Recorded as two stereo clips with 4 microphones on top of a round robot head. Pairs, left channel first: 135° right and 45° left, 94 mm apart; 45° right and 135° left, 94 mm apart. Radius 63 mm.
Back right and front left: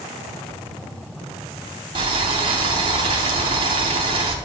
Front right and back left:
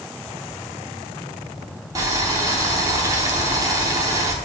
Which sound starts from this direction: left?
Boiling, at 1.9 s.